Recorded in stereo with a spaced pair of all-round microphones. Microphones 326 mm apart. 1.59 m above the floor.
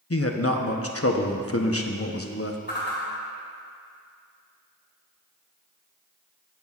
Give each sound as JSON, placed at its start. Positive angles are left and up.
{"t": 0.1, "sound": "a man speaking", "side_deg": 45, "distance_m": 0.9}
{"t": 2.7, "sound": "a whoosh", "side_deg": 30, "distance_m": 3.0}